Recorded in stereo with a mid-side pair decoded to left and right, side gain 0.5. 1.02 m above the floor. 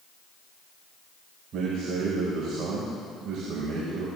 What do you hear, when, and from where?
1.5 s a man speaking: 60° right, 4.5 m